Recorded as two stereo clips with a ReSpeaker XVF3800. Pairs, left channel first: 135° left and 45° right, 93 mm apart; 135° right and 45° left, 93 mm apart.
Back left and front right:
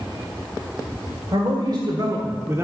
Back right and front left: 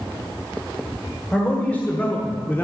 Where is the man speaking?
65° right, 1.7 m; by 2.6 s 85° right, 1.1 m.